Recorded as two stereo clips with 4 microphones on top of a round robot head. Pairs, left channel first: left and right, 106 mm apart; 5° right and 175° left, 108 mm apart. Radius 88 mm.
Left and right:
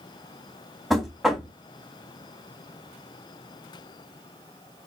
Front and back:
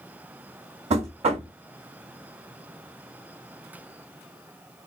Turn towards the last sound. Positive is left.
turn(degrees=180)